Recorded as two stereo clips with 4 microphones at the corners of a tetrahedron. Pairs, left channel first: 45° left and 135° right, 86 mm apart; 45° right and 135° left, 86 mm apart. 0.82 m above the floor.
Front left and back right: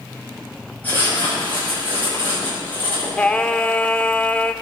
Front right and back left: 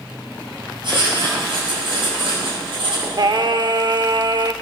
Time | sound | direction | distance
0.8 | writing | 115° left | 6 m
3.2 | singing | 115° left | 0.6 m